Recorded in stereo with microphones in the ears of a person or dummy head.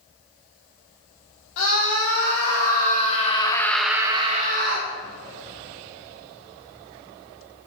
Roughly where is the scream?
Left.